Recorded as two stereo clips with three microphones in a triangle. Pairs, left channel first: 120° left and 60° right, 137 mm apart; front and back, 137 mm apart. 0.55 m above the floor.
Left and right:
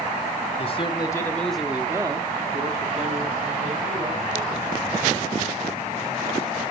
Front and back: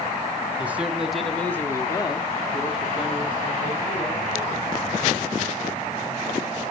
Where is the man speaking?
110° left, 1.6 m; by 4.7 s 50° right, 3.5 m.